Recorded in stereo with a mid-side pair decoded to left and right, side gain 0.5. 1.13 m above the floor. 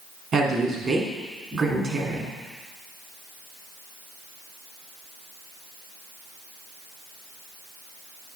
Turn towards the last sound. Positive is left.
turn(degrees=-40)